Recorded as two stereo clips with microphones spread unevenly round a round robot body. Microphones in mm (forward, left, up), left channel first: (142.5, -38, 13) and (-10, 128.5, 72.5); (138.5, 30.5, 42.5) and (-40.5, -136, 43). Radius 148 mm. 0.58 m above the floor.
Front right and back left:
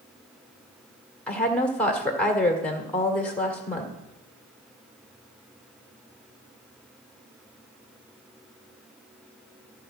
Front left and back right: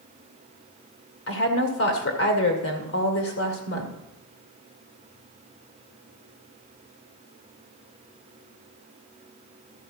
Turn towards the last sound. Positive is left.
turn(degrees=30)